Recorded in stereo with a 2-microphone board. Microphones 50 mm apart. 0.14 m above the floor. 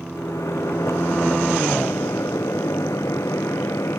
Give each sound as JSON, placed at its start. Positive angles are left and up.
{"t": 0.1, "sound": "a microwave", "side_deg": 80}